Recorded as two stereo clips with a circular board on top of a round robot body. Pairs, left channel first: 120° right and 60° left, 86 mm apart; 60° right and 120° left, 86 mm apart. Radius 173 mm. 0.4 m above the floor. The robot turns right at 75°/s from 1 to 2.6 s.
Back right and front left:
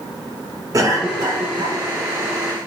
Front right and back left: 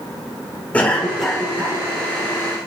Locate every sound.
0.7 s a cough: 15° left, 4.5 m; by 1.8 s 70° left, 4.5 m